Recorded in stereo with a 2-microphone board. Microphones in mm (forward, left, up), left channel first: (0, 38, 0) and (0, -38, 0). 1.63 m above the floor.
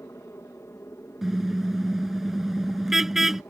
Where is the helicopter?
40° left (ahead or behind); by 3.5 s 35° left (ahead or behind).